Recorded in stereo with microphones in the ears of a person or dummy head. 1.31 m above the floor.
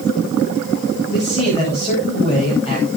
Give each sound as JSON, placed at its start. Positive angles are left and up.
{"t": 1.1, "sound": "a man speaking", "side_deg": 30, "distance_m": 7.0}